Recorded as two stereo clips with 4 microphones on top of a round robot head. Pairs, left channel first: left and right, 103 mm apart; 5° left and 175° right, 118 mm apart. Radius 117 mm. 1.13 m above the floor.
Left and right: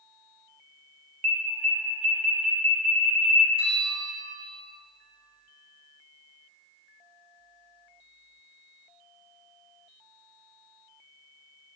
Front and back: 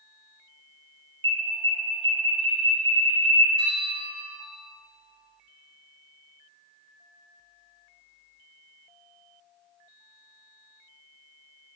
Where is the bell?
125° right, 3 m.